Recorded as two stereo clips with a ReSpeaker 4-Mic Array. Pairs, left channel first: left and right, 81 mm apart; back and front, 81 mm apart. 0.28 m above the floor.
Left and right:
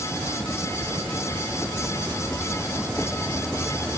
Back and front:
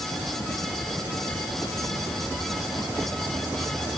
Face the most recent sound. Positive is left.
No sound to turn to.